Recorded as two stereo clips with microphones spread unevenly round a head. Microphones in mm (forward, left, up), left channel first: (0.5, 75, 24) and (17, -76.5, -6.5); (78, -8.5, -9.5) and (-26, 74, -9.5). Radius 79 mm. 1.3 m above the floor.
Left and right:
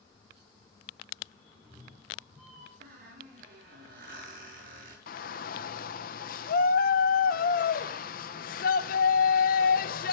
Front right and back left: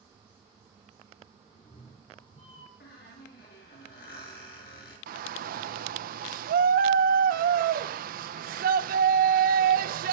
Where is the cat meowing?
10° left, 3 m; by 2.7 s 5° left, 4.5 m.